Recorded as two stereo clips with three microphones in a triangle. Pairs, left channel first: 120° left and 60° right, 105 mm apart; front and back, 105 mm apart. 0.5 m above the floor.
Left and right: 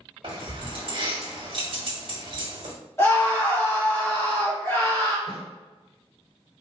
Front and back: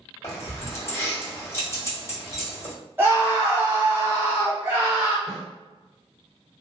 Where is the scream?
145° left, 1.3 m.